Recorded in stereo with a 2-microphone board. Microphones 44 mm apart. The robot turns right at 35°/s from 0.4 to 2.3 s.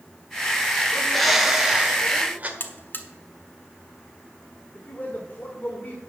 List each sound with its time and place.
0.9 s a bird: 170° left, 1.3 m; by 2.5 s 140° right, 1.3 m
2.6 s a buzzer: 50° left (ahead or behind), 1.2 m
4.8 s a man speaking: 35° left (ahead or behind), 1.4 m